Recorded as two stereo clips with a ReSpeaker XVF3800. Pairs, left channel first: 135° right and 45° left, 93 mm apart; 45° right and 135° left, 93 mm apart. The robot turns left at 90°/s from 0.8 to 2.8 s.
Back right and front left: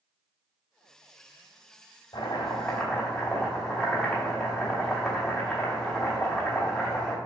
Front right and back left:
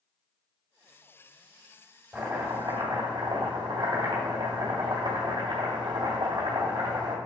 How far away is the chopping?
About 2 m.